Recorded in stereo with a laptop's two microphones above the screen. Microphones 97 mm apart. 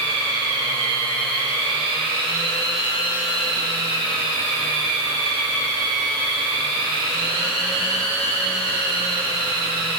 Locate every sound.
0.0 s a machine running: 70° left (ahead or behind), 1.1 m